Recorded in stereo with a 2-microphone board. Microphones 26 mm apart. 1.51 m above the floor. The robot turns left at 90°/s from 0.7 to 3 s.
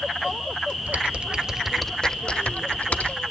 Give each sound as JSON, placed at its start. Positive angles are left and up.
{"t": 0.9, "sound": "typing on a keyboard", "side_deg": -65, "distance_m": 0.8}